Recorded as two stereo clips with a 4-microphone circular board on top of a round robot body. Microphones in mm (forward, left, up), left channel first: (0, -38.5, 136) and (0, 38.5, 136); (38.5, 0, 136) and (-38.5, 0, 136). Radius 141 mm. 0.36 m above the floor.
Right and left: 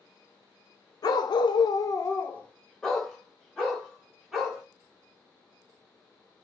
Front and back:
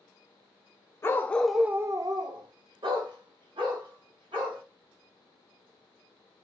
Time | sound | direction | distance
1.0 | a dog barking | 60° right | 0.6 m